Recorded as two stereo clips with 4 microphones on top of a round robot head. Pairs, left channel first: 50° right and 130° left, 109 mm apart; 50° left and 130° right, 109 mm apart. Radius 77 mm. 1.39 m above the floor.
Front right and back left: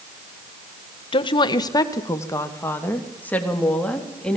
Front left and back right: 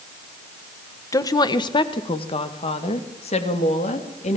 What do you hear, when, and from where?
1.1 s a woman speaking: 10° right, 1.6 m; by 4.4 s 30° left, 3.5 m